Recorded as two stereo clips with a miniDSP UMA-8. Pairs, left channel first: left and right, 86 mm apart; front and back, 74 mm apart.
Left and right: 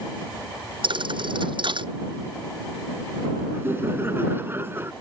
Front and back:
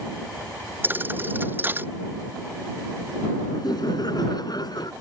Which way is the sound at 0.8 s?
115° right.